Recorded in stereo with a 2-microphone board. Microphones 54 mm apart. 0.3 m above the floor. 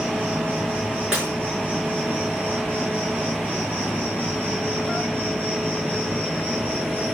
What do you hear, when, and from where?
0.0 s an insect: 35° right (ahead or behind), 4.5 m
1.1 s breaking glass: 15° right (ahead or behind), 5.5 m